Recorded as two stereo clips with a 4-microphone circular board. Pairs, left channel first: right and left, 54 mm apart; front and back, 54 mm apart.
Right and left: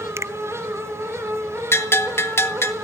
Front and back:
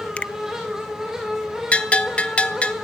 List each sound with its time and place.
0.2 s a finger snap: 65° left, 0.7 m
1.7 s a bell: 65° right, 1.7 m